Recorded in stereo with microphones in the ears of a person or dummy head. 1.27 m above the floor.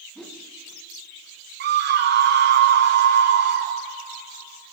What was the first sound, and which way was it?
A whoosh, centre (ahead or behind).